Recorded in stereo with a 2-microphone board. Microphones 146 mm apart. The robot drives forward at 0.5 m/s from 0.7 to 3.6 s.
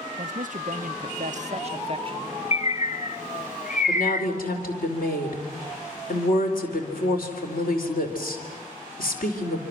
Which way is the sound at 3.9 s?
80° left.